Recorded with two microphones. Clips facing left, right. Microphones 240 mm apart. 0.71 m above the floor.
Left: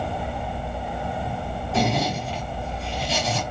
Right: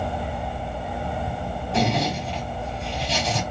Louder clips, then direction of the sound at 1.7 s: Even; 5° left (ahead or behind).